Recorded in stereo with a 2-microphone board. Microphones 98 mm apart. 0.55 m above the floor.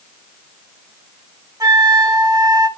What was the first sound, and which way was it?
A flute, 40° right (ahead or behind).